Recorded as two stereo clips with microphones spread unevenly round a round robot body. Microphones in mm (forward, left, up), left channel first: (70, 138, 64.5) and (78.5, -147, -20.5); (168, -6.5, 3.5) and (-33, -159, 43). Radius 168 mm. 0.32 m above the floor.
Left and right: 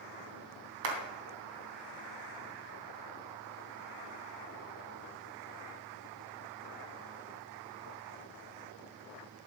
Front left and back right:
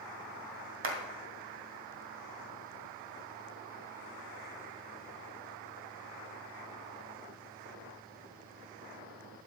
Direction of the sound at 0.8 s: 105° right.